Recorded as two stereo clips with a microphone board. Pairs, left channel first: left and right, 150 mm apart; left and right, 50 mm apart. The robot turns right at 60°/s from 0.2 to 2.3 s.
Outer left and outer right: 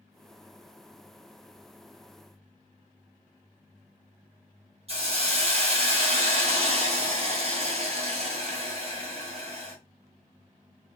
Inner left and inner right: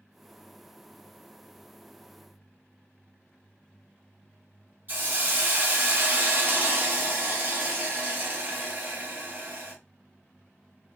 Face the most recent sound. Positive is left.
turn(degrees=-40)  # may be behind; listen again after turning